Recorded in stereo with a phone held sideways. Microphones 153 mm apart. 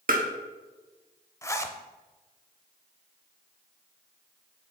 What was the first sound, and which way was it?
Tapping, 65° right (ahead or behind).